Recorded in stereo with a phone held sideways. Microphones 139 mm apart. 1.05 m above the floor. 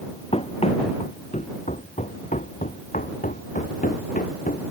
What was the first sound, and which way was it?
Running footsteps, 45° left (ahead or behind).